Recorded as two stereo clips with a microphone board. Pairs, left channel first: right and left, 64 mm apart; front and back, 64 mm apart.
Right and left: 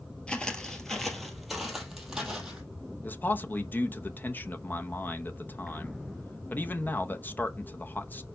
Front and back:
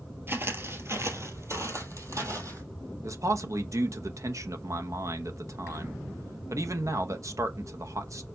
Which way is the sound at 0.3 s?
160° right.